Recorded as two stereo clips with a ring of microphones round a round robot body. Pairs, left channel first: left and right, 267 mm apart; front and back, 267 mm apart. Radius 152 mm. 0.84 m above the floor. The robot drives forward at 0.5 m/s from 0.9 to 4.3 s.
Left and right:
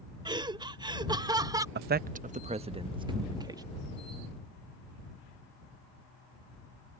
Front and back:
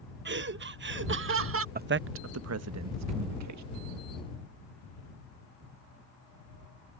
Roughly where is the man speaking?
Behind right.